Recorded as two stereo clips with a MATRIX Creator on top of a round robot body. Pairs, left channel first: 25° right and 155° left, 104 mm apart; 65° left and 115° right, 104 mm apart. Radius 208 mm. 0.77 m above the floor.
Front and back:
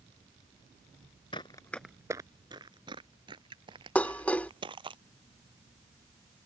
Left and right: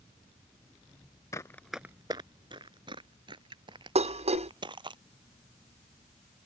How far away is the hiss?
I don't hear a hiss.